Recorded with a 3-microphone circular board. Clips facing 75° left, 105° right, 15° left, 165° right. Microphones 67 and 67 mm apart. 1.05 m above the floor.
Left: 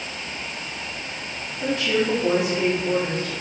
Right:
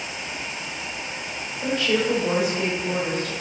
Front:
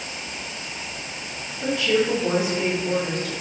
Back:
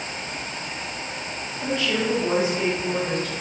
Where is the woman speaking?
90° left, 1.7 m.